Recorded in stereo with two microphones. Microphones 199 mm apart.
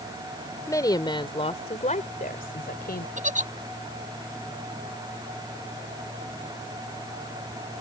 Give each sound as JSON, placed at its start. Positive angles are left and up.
{"t": 0.7, "sound": "a woman speaking", "side_deg": 15}
{"t": 3.2, "sound": "a giggle", "side_deg": -40}